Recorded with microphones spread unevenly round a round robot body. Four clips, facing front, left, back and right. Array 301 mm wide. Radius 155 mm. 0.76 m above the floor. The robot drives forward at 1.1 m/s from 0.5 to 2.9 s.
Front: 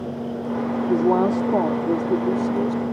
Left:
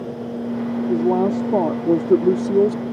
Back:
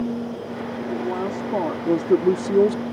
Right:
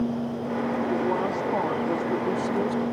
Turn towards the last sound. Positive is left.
turn(degrees=135)